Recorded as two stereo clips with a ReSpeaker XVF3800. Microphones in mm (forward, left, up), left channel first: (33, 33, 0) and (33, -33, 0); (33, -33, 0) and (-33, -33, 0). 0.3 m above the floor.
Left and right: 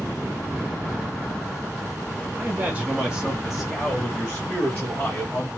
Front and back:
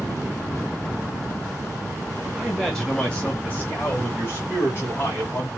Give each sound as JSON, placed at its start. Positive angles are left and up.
{"t": 2.4, "sound": "a man speaking", "azimuth_deg": -85, "distance_m": 1.1}